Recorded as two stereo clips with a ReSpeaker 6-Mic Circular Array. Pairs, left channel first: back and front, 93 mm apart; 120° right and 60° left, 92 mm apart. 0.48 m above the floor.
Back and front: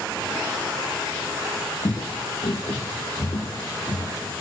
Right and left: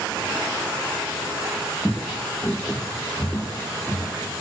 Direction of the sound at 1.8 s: 155° left.